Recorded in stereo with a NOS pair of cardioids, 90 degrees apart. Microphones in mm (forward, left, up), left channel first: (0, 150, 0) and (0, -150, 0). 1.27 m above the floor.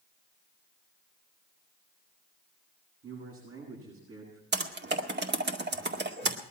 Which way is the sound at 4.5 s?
35° right.